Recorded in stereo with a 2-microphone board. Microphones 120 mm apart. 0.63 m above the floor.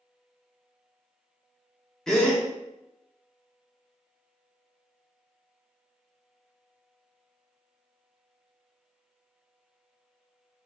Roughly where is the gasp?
Centre.